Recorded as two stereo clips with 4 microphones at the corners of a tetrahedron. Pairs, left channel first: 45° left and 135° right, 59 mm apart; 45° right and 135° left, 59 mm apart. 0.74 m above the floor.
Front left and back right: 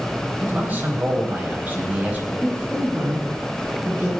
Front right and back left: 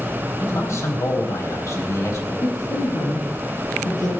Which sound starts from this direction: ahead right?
A woman speaking, at 2.4 s.